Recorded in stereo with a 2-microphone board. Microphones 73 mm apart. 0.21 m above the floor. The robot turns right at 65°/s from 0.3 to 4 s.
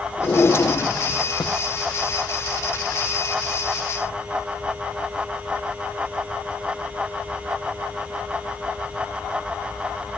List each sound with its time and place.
0.2 s a drawer: 15° left, 3.5 m; by 1.6 s 95° left, 3.5 m